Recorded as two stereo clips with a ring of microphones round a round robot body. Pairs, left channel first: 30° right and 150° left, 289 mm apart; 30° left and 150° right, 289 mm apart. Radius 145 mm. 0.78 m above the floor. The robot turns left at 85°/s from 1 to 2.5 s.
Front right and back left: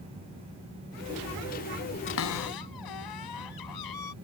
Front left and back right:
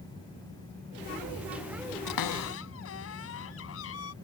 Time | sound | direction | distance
2.1 | a cupboard door | 20° left | ?